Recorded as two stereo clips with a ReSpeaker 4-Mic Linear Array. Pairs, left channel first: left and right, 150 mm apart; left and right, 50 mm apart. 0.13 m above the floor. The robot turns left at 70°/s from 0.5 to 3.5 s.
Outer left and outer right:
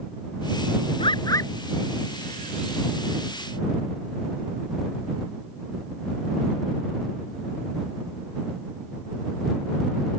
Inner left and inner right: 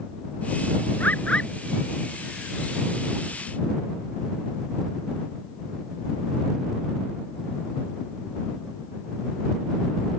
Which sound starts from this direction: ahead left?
A bird, at 1.0 s.